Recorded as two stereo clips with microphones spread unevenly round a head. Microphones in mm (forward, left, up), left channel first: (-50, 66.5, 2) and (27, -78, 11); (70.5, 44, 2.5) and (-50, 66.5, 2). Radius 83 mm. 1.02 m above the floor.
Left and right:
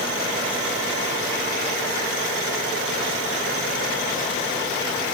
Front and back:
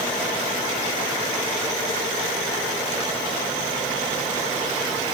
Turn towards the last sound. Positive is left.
No sound to turn to.